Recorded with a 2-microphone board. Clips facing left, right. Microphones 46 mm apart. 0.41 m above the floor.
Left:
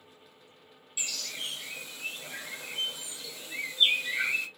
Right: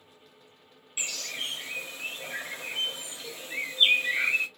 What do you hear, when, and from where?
1.0 s a bird: 40° right (ahead or behind), 1.0 m